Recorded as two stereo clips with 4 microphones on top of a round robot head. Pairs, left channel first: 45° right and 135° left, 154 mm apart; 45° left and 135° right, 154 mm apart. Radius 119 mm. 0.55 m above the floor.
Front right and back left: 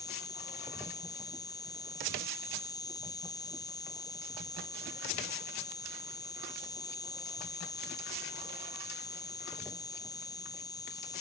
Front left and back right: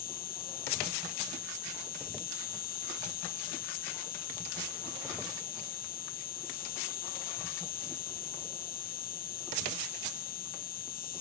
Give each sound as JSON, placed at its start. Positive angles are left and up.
{"t": 0.0, "sound": "an insect", "azimuth_deg": 20}